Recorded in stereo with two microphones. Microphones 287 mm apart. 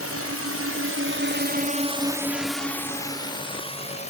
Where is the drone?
55° right (ahead or behind); by 4.1 s 25° left (ahead or behind).